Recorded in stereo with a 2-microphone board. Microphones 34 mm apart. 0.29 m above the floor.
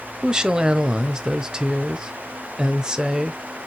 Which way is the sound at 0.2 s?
25° right (ahead or behind).